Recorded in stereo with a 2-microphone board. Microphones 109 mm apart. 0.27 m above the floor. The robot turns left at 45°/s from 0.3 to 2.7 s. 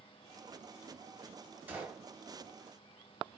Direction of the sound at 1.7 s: 15° right (ahead or behind).